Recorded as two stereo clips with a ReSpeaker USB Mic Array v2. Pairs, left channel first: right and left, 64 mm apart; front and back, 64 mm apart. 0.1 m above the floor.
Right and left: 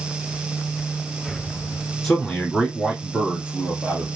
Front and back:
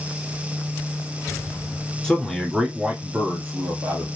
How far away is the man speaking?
About 1.1 m.